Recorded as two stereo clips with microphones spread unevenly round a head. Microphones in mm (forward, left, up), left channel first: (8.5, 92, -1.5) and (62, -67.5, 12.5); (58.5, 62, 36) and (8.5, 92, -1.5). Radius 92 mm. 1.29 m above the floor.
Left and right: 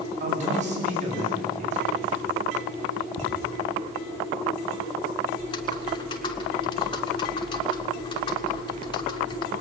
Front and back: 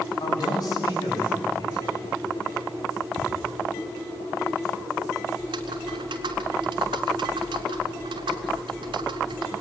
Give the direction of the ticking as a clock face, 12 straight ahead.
7 o'clock.